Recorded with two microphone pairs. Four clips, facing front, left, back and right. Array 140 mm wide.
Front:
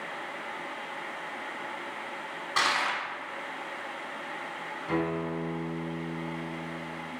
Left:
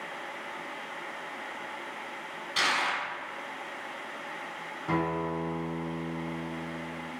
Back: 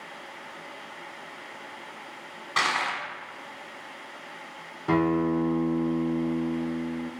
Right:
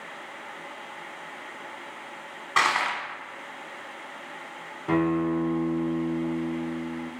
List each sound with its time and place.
2.6 s crushing: 95° right, 1.2 m
4.9 s a guitar: 160° right, 0.7 m